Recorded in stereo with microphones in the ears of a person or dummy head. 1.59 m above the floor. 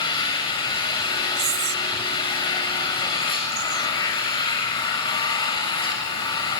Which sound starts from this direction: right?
Whispering, at 1.4 s.